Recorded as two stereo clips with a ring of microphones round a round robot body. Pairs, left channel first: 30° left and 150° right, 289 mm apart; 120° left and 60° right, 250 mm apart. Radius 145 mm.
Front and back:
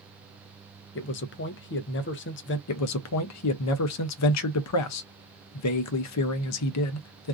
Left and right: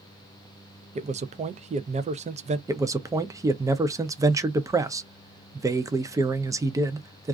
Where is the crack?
No crack in this recording.